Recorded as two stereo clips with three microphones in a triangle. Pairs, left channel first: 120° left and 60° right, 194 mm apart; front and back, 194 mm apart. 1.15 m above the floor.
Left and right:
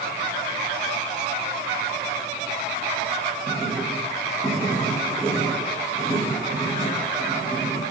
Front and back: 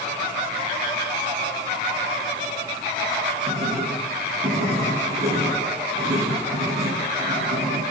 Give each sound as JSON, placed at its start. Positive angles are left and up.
{"t": 3.5, "sound": "writing", "azimuth_deg": -120, "distance_m": 9.5}